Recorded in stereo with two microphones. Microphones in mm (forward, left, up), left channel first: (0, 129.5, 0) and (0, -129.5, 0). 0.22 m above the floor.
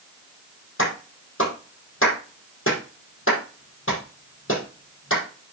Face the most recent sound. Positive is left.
turn(degrees=50)  # may be behind; listen again after turning